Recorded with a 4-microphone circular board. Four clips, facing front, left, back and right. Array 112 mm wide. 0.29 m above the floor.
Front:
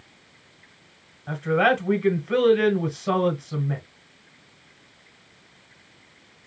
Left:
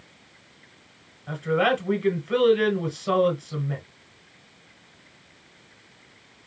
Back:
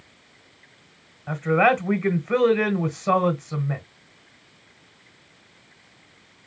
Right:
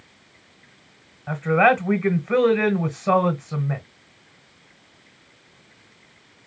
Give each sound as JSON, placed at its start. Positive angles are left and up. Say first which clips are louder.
{"t": 1.3, "sound": "a man speaking", "louder": "right 5 dB, back 2 dB", "azimuth_deg": -120, "distance_m": 1.1}